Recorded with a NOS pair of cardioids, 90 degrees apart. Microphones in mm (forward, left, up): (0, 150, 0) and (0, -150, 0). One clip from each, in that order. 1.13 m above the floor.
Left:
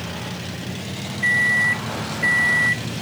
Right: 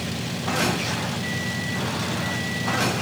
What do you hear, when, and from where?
1.2 s a microwave: 60° left, 0.6 m